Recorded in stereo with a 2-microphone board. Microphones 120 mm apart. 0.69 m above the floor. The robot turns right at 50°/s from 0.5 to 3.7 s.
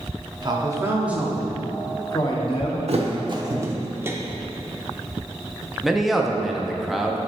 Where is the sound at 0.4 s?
45° right, 1.0 m; by 2.8 s 70° left, 1.0 m.